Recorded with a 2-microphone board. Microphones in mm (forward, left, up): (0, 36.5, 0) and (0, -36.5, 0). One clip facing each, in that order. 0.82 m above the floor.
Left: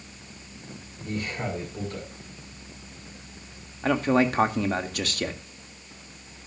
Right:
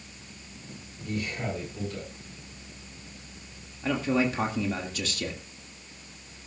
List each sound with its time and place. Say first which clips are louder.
1.0 s a man speaking: left 1 dB; 40° left (ahead or behind), 8 m
3.8 s a man speaking: left 4 dB; 60° left (ahead or behind), 1.7 m